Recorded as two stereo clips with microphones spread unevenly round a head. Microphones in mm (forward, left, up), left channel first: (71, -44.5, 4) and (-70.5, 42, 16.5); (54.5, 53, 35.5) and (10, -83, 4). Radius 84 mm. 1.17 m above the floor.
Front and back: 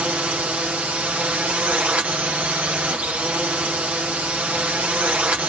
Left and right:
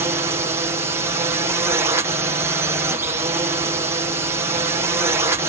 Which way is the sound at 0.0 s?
130° right.